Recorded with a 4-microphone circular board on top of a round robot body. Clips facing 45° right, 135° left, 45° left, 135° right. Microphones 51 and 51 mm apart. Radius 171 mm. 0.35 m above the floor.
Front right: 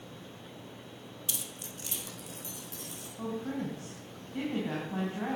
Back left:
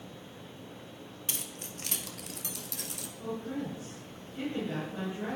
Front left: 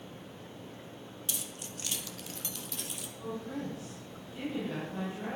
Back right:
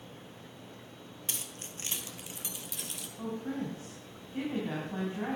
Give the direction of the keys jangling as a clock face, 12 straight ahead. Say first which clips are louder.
Back left 1 dB, even; 6 o'clock.